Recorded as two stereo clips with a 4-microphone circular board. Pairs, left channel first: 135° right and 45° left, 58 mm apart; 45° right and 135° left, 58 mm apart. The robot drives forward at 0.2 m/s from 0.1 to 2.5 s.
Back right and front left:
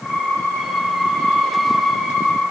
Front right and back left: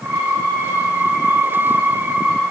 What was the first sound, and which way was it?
Only background noise.